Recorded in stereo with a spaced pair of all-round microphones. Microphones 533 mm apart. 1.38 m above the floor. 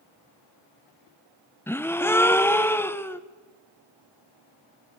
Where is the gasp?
5° left (ahead or behind), 0.9 m.